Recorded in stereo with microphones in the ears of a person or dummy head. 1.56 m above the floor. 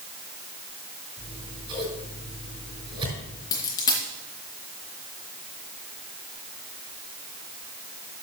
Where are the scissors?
30° right (ahead or behind), 6 m.